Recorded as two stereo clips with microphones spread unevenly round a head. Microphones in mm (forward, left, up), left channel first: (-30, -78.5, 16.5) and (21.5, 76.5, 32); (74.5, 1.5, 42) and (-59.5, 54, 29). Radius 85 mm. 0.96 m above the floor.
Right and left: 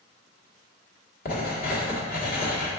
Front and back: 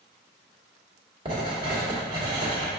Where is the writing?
140° right, 1.5 m.